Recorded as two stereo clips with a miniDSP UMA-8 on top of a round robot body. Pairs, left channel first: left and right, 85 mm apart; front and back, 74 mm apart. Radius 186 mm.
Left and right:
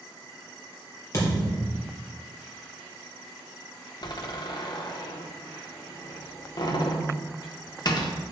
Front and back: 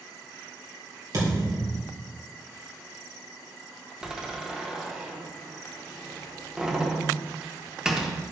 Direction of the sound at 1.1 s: 145° left.